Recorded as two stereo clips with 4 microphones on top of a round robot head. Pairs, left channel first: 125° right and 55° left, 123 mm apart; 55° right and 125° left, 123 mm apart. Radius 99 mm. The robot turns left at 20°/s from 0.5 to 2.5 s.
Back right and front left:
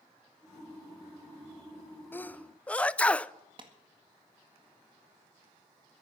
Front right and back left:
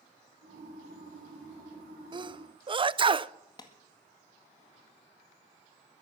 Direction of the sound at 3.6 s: 5° left.